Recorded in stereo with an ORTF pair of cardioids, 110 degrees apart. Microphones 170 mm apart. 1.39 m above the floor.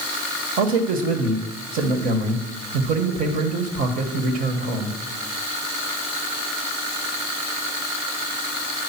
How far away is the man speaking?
About 1.4 m.